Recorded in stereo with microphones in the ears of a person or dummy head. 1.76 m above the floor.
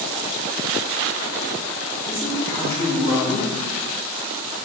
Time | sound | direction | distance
2.1 | a man speaking | 15° left (ahead or behind) | 1.7 m